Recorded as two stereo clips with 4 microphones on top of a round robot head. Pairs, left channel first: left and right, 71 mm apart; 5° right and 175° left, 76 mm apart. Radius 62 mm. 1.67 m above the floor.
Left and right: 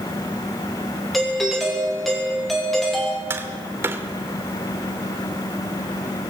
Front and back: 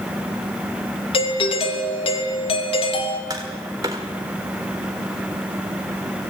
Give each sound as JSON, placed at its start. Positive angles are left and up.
{"t": 1.1, "sound": "a doorbell", "azimuth_deg": 0, "distance_m": 3.0}
{"t": 3.3, "sound": "tapping", "azimuth_deg": -130, "distance_m": 1.6}